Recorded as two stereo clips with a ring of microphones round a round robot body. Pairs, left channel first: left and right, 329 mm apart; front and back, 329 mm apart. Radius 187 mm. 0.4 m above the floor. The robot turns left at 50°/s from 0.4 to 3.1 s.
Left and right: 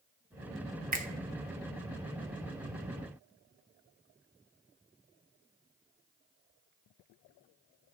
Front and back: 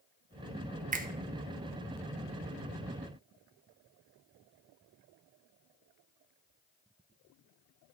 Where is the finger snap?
130° right, 0.8 m; by 1.1 s 140° right, 0.8 m.